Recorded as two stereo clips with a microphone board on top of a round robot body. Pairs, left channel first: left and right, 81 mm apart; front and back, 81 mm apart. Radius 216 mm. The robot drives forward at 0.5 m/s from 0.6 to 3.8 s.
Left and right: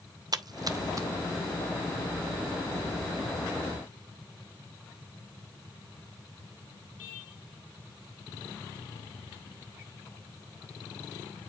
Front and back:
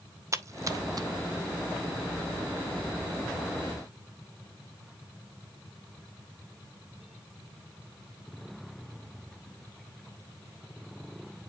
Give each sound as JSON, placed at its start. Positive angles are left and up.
{"t": 0.3, "sound": "a splash", "azimuth_deg": -130, "distance_m": 0.8}